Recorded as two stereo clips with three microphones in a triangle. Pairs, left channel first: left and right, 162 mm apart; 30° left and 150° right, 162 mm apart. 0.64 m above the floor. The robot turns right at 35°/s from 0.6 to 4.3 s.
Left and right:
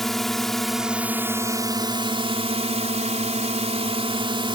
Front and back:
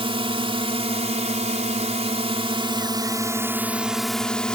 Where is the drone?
Straight behind; by 4.6 s 55° right.